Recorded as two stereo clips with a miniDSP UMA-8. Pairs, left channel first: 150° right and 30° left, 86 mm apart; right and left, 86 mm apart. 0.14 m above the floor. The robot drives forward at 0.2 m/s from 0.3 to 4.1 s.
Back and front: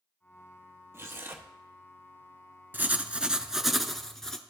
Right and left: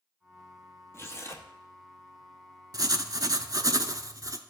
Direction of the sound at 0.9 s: 30° right.